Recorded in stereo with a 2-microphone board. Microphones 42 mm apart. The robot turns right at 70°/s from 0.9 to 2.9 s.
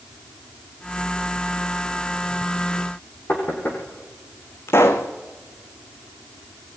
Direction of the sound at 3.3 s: 50° left (ahead or behind).